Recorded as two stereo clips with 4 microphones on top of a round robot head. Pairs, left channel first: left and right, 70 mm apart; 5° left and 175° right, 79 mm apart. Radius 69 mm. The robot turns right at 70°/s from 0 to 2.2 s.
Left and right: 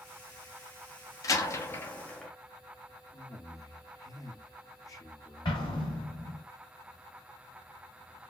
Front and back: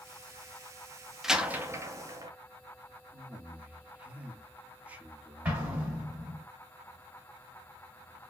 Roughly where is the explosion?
Behind left.